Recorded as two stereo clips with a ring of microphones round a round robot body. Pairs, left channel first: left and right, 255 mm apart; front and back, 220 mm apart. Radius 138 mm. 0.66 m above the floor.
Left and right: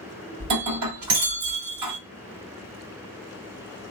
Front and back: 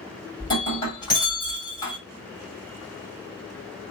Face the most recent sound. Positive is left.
turn(degrees=-75)